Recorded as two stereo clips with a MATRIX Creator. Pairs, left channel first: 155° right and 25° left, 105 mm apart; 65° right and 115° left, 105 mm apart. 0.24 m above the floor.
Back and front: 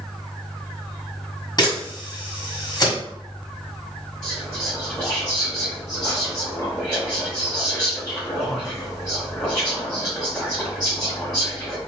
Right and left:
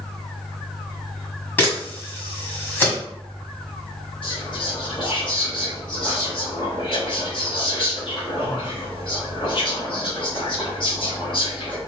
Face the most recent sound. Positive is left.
turn(degrees=-70)